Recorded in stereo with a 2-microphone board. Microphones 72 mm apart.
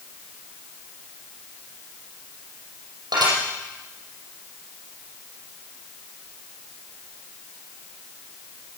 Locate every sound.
3.1 s dishes clattering: 75° right (ahead or behind), 7 m